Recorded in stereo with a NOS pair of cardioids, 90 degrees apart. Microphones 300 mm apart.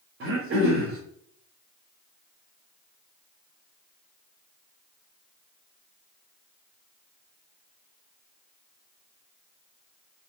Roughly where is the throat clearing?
Ahead right.